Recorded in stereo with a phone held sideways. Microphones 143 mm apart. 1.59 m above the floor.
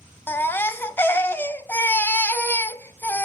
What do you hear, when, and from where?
0.3 s a baby crying: 15° left (ahead or behind), 0.7 m